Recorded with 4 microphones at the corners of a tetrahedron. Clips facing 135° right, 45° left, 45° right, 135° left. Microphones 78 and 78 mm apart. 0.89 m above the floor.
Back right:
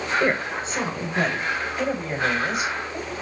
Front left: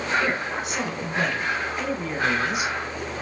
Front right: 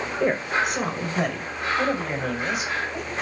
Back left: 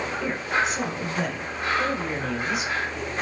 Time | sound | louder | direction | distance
0.2 | a woman speaking | back right 2 dB, front right 4 dB | 80° right | 4 m